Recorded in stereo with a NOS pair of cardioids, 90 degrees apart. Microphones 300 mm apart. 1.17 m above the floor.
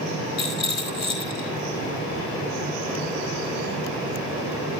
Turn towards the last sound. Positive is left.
turn(degrees=60)